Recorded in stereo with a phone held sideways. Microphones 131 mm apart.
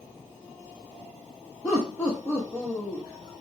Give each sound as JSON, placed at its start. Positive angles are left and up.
{"t": 1.6, "sound": "laughter", "side_deg": 10, "distance_m": 1.3}